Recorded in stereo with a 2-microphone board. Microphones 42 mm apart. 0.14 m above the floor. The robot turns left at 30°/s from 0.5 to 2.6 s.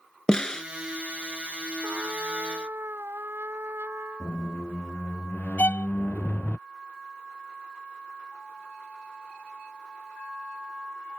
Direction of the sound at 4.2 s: 50° left (ahead or behind).